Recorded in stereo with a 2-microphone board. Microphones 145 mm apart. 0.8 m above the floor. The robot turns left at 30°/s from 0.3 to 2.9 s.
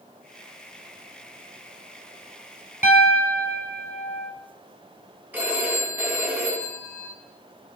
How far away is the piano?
About 1.4 m.